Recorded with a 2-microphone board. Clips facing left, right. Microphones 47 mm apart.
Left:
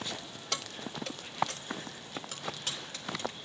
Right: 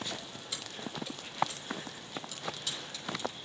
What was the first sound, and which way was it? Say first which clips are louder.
Keys jangling: left 3 dB; 80° left.